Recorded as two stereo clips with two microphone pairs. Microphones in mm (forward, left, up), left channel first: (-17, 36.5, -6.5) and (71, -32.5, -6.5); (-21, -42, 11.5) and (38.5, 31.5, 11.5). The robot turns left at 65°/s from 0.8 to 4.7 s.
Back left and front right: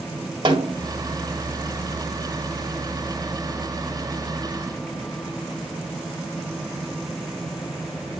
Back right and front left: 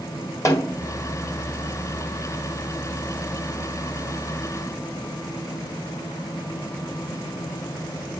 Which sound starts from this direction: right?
A snare drum, at 0.5 s.